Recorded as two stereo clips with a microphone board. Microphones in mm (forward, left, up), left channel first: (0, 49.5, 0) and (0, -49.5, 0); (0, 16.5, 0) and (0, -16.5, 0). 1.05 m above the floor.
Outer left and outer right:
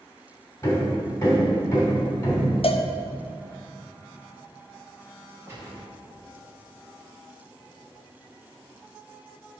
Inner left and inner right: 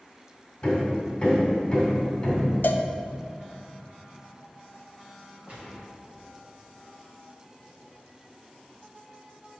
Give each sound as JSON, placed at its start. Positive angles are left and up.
{"t": 0.6, "sound": "hammering", "side_deg": 25, "distance_m": 2.5}
{"t": 2.6, "sound": "a cowbell", "side_deg": 70, "distance_m": 0.5}
{"t": 5.5, "sound": "a gunshot", "side_deg": -25, "distance_m": 2.0}